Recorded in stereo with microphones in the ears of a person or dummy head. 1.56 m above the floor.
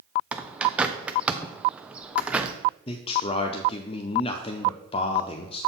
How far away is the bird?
About 0.5 m.